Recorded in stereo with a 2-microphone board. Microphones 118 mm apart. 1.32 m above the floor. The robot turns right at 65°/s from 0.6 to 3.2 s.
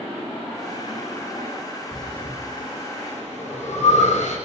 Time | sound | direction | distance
1.9 | breathing | centre (ahead or behind) | 7 m